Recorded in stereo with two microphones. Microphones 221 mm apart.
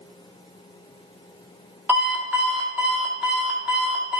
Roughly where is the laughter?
No laughter in this recording.